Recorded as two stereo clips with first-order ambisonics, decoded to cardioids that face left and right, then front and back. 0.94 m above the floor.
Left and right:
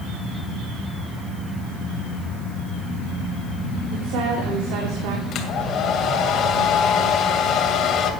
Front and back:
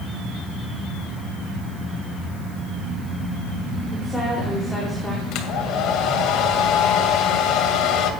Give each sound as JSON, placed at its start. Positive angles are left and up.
{"t": 3.9, "sound": "a woman speaking", "azimuth_deg": -85, "distance_m": 3.0}
{"t": 5.3, "sound": "a hair dryer", "azimuth_deg": 35, "distance_m": 2.0}